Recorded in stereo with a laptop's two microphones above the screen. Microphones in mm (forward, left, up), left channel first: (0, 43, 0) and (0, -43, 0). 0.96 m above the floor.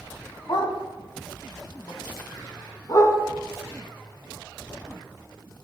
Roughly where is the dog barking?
Left.